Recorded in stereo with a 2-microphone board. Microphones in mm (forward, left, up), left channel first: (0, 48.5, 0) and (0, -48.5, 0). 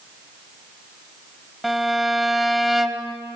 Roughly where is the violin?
Centre.